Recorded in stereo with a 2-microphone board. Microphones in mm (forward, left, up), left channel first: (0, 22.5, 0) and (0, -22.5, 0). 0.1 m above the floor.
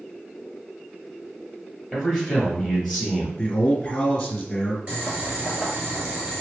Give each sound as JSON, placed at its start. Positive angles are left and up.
{"t": 1.9, "sound": "a man speaking", "side_deg": -5, "distance_m": 2.0}
{"t": 3.4, "sound": "a man speaking", "side_deg": 15, "distance_m": 1.2}
{"t": 4.9, "sound": "boiling", "side_deg": -30, "distance_m": 1.4}